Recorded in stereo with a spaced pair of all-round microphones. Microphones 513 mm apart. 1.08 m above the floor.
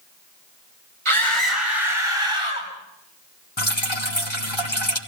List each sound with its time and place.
1.1 s a scream: 75° right (ahead or behind), 5.5 m; by 2.7 s 85° right, 7.5 m
3.6 s dripping: 65° left (ahead or behind), 2.5 m